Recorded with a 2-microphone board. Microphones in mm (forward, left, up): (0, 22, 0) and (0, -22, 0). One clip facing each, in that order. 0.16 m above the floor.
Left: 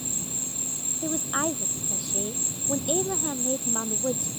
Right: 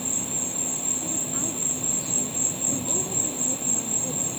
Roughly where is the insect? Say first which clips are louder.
Right 4 dB; right.